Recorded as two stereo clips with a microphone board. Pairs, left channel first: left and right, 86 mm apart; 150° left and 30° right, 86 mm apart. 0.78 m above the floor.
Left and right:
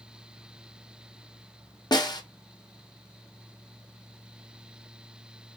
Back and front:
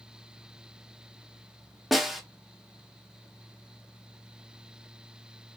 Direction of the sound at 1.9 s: 55° left.